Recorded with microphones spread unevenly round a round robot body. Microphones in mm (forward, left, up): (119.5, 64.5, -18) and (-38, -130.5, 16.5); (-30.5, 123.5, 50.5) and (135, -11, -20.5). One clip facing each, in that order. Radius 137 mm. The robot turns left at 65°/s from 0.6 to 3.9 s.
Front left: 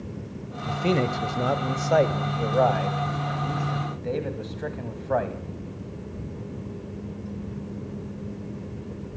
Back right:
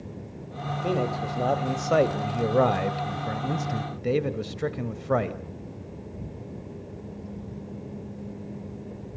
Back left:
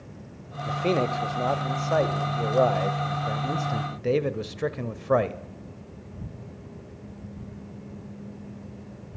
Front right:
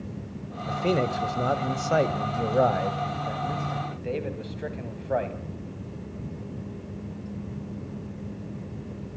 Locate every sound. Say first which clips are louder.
0.7 s a man speaking: front left 3 dB, even; 35° left, 1.5 m; by 5.4 s 175° right, 1.5 m